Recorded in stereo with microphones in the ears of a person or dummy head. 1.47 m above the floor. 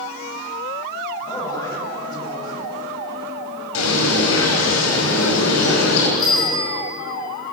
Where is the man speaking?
25° left (ahead or behind), 7.5 m.